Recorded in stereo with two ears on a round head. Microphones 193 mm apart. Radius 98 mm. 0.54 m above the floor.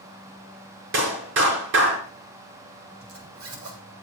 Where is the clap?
65° right (ahead or behind), 5.5 m.